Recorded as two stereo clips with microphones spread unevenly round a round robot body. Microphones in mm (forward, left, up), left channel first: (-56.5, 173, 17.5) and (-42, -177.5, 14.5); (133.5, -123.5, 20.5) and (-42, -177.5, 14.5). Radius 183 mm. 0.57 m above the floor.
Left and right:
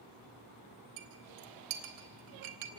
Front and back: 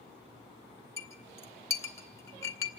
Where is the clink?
60° right, 2 m.